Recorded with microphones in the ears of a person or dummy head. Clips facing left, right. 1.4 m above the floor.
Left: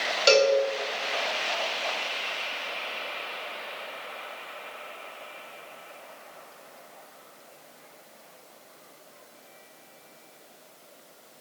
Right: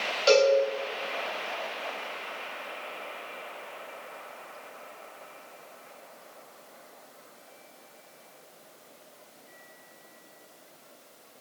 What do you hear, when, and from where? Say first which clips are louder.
0.3 s a cowbell: even; 20° left (ahead or behind), 3 m